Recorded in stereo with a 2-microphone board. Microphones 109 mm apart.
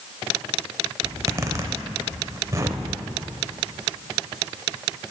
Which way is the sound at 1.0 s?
30° right (ahead or behind).